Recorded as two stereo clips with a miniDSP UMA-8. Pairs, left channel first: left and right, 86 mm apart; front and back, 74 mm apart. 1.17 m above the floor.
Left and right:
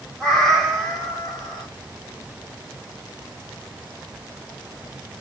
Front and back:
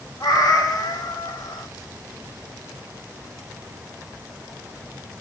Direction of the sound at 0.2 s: Straight ahead.